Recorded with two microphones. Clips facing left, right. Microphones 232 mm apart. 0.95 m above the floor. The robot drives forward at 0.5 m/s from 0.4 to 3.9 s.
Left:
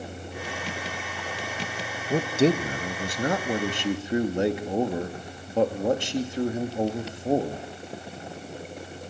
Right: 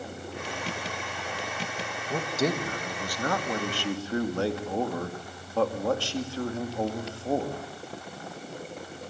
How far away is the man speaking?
About 1.2 m.